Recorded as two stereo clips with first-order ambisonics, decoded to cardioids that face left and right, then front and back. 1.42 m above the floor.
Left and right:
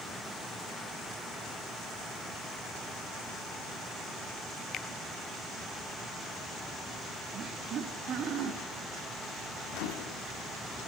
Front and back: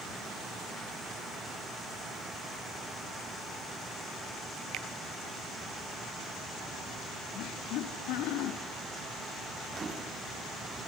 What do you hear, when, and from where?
4.7 s a finger snap: 140° left, 0.6 m
7.3 s laughter: 35° right, 3.5 m
9.7 s a microwave: 110° left, 2 m